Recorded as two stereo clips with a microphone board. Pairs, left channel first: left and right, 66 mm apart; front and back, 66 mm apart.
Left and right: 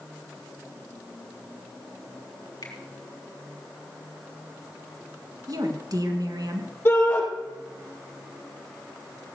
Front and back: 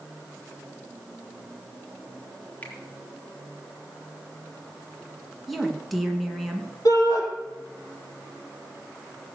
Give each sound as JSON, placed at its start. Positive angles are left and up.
{"t": 2.6, "sound": "a finger snap", "azimuth_deg": 65, "distance_m": 4.0}
{"t": 5.5, "sound": "a woman speaking", "azimuth_deg": -90, "distance_m": 2.5}
{"t": 6.8, "sound": "a shout", "azimuth_deg": 30, "distance_m": 5.0}